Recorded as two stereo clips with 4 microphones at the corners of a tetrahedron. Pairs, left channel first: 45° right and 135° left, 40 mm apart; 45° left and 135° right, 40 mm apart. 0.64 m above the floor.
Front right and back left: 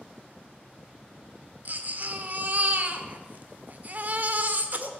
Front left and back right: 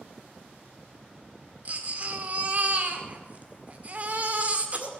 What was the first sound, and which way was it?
A baby crying, 175° left.